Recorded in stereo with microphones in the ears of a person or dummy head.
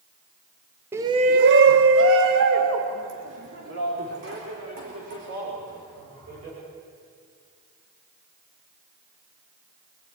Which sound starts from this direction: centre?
A shout, at 0.9 s.